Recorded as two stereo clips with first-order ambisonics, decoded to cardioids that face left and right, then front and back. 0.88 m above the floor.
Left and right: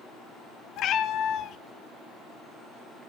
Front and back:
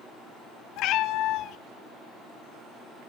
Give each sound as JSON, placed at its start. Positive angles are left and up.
{"t": 0.8, "sound": "a cat meowing", "azimuth_deg": 40, "distance_m": 0.7}